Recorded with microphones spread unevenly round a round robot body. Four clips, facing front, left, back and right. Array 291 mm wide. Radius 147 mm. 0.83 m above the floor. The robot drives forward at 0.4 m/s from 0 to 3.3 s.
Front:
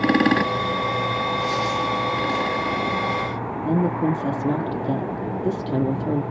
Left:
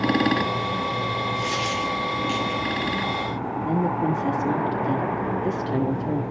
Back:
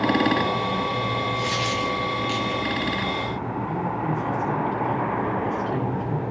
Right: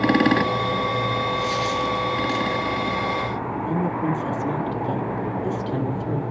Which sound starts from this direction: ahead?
A woman speaking, at 3.6 s.